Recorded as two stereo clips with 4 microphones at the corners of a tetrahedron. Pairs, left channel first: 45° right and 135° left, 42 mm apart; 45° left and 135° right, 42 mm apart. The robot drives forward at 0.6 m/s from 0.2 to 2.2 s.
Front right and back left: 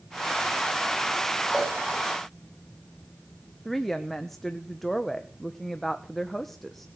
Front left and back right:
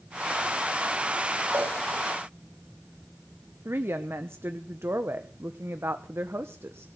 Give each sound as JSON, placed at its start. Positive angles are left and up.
{"t": 1.5, "sound": "a cowbell", "azimuth_deg": -145, "distance_m": 7.0}
{"t": 3.6, "sound": "a woman speaking", "azimuth_deg": -130, "distance_m": 1.2}